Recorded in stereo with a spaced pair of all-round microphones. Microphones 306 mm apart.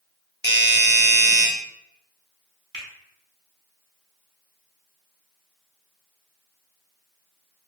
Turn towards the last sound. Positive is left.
turn(degrees=-85)